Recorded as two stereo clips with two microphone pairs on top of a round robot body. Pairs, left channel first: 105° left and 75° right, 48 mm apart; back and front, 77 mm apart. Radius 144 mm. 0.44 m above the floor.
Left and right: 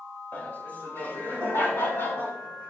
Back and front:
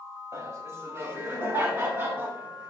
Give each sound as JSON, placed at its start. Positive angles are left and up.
{"t": 0.3, "sound": "laughter", "azimuth_deg": 45, "distance_m": 3.0}